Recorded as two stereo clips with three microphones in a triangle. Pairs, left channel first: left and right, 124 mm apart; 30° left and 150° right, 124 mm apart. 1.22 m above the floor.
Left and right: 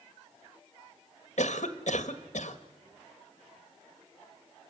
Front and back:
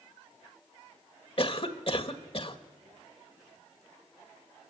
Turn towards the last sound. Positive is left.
turn(degrees=70)